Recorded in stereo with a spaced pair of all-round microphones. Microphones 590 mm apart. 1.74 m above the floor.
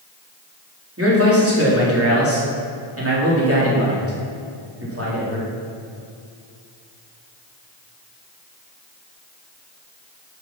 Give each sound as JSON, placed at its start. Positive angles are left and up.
{"t": 1.0, "sound": "a man speaking", "side_deg": -20, "distance_m": 3.5}